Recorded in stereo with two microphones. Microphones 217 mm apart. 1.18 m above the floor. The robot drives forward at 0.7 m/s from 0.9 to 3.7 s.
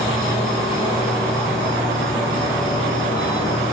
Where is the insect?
Centre (ahead or behind), 6.5 m.